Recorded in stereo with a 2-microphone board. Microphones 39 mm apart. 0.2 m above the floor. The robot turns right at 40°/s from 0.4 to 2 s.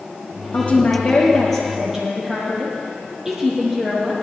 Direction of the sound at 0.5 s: 130° left.